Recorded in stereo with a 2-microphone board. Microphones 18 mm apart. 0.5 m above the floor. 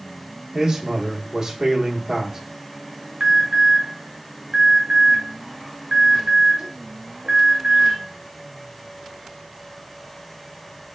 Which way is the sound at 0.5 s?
30° right (ahead or behind).